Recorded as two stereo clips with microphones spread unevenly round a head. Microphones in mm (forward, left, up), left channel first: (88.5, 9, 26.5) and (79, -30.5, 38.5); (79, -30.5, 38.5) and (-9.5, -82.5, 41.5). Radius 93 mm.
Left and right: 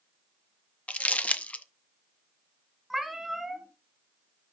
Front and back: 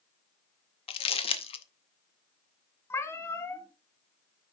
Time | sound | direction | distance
0.9 | crumpling | 15° left | 0.6 m
2.9 | a cat meowing | 30° right | 1.6 m